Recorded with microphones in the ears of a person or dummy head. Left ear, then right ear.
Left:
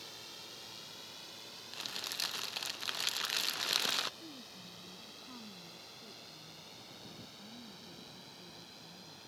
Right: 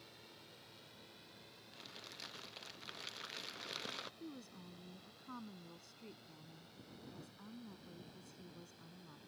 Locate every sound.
0.0 s a drone: 50° left (ahead or behind); by 9.3 s 40° left (ahead or behind)
1.7 s crumpling: 35° left (ahead or behind)
4.2 s a woman speaking: 80° right